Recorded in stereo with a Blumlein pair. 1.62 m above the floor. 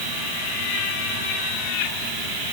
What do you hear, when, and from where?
Only background noise.